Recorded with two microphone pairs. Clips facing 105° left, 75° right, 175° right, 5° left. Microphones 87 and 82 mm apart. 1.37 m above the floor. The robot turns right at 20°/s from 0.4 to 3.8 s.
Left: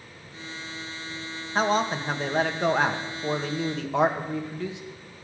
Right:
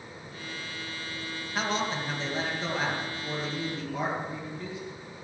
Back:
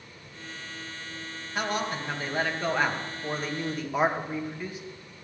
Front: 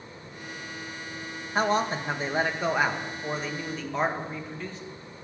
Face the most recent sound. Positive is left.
turn(degrees=105)